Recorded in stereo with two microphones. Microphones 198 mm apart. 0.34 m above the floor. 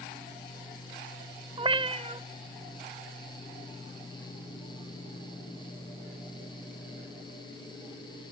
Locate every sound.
1.6 s a cat meowing: 25° right (ahead or behind), 0.5 m